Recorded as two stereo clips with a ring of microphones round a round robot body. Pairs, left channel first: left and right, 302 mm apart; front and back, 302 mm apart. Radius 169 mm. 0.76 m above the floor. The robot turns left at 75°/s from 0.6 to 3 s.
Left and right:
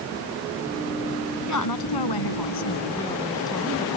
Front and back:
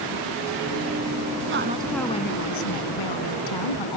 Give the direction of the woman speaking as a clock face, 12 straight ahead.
8 o'clock.